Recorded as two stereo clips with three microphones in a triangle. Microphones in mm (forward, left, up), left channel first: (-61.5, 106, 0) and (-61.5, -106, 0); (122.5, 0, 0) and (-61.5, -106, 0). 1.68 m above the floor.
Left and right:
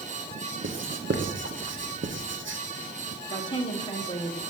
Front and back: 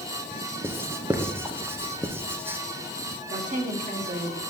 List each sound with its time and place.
0.6 s writing: 70° right, 0.8 m
3.3 s a woman speaking: 160° left, 1.5 m